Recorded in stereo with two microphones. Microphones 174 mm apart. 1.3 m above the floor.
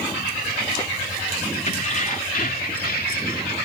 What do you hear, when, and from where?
1.7 s keys jangling: 45° left (ahead or behind); by 3.5 s 65° left (ahead or behind)